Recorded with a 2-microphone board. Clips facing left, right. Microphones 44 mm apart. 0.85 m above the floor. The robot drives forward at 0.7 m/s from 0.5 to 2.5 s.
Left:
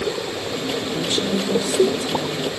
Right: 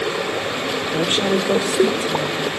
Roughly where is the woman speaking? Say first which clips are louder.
Right 5 dB; right.